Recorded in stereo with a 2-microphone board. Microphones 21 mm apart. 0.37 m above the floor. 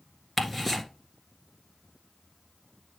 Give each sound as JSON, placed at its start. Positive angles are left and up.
{"t": 0.4, "sound": "ticking", "side_deg": 0, "distance_m": 1.7}